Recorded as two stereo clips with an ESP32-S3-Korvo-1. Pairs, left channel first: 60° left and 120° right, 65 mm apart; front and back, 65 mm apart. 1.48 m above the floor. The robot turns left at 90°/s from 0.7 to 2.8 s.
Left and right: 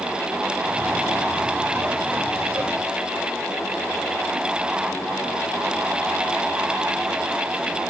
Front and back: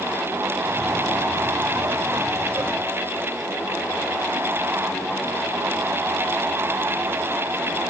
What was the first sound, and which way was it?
Only background noise.